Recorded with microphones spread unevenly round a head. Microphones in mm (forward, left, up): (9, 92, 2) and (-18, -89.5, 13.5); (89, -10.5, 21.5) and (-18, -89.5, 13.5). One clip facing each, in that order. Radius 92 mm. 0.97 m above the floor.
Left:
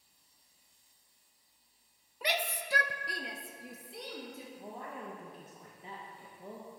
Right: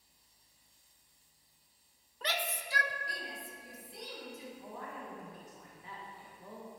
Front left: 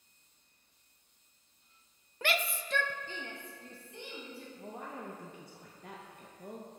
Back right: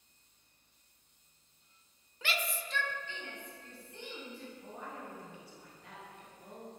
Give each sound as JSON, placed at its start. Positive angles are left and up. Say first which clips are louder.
{"t": 2.2, "sound": "a shout", "louder": "left 3 dB, front left 4 dB", "azimuth_deg": 5, "distance_m": 0.6}
{"t": 4.6, "sound": "a woman speaking", "louder": "left 1 dB, front left 2 dB", "azimuth_deg": 30, "distance_m": 1.0}